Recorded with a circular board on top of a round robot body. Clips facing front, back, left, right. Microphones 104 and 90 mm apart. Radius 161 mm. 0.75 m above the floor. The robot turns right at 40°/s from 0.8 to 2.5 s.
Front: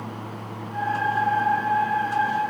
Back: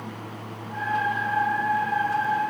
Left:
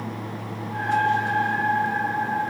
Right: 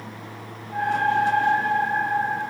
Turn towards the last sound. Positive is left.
No sound to turn to.